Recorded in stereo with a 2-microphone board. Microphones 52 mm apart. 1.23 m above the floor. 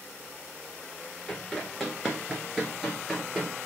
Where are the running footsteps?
5° left (ahead or behind), 1.3 m; by 3.5 s 10° right (ahead or behind), 1.6 m.